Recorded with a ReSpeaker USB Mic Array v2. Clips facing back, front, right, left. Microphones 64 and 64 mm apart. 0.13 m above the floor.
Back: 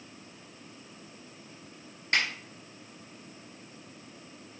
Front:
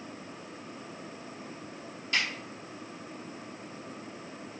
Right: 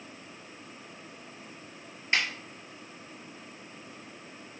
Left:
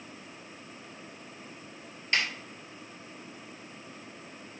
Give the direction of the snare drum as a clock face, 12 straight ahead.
5 o'clock.